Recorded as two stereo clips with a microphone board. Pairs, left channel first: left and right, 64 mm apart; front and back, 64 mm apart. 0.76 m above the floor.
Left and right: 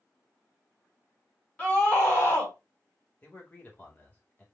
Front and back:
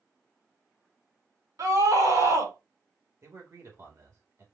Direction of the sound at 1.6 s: 160° left.